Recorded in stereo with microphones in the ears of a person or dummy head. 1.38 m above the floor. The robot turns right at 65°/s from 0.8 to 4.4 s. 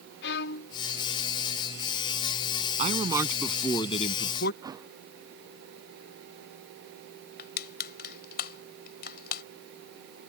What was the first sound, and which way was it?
A violin, 65° left (ahead or behind).